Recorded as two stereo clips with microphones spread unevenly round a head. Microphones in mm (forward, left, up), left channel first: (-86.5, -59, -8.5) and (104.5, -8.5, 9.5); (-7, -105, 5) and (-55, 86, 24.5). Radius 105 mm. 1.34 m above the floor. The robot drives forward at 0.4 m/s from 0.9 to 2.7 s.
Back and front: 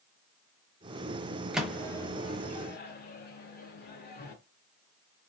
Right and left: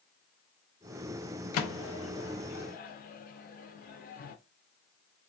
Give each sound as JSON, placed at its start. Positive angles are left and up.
{"t": 1.5, "sound": "a microwave", "azimuth_deg": -70, "distance_m": 0.5}